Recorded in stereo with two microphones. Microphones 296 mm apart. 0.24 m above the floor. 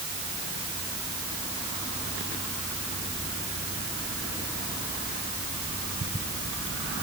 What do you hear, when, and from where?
Only background noise.